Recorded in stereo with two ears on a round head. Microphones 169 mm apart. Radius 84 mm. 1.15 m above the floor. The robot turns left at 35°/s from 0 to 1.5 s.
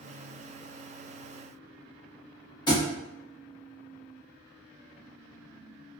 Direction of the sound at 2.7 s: 25° left (ahead or behind).